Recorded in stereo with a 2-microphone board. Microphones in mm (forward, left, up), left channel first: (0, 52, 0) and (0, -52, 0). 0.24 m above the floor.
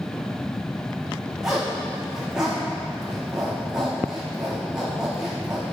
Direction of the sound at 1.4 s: 5° right (ahead or behind).